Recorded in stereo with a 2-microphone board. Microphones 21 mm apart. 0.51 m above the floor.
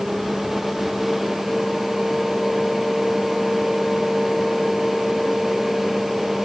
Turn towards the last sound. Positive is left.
No sound to turn to.